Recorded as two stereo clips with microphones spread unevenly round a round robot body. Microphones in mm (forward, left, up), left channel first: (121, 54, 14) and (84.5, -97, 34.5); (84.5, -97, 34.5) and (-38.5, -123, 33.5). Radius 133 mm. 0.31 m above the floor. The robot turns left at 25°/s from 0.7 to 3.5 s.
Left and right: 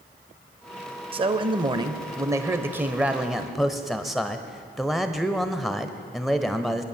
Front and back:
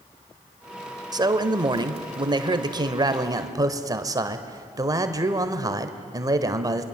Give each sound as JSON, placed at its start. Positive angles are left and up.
{"t": 1.1, "sound": "a man speaking", "azimuth_deg": -145, "distance_m": 1.1}